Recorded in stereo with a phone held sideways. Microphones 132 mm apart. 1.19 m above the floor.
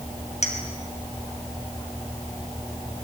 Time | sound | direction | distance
0.4 | a clink | 60° left (ahead or behind) | 5 m